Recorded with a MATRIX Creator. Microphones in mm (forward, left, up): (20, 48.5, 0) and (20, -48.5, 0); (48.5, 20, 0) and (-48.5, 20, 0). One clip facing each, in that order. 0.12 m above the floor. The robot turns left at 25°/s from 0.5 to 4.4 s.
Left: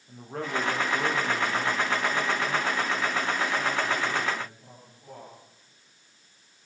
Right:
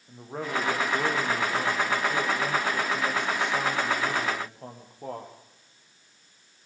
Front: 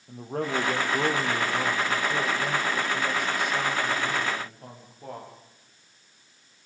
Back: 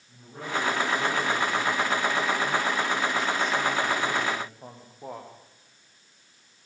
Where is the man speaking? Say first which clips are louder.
Even, front 4 dB; 10° right, 5 m; by 5.3 s 105° right, 5 m.